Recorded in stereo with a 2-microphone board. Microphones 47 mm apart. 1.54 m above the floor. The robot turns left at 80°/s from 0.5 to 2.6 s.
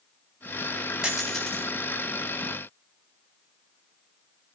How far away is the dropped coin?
About 4.5 m.